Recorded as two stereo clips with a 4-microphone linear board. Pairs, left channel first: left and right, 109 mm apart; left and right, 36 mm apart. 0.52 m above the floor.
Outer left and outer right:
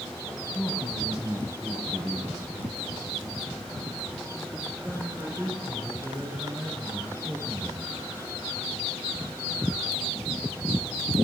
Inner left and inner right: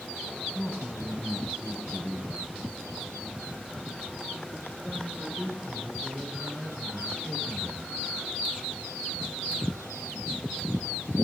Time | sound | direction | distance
0.6 | a man speaking | 20° left (ahead or behind) | 3.5 m